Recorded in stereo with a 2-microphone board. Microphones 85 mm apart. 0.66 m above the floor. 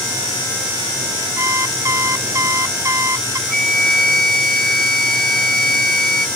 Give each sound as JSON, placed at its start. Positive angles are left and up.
{"t": 1.4, "sound": "an alarm clock", "side_deg": -35}
{"t": 3.5, "sound": "a flute", "side_deg": 5}